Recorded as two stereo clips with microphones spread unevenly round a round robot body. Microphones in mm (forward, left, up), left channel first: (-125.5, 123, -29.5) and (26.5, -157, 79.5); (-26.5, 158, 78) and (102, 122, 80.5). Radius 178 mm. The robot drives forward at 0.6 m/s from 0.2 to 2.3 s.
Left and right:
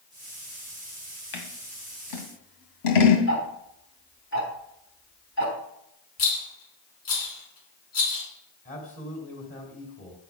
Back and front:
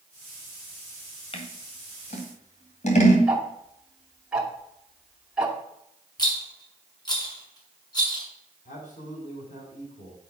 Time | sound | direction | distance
1.3 | scissors | 120° left | 2.0 m
3.3 | ticking | 70° left | 2.5 m
6.2 | a rattle | 105° left | 5.5 m
8.7 | a man speaking | 175° left | 3 m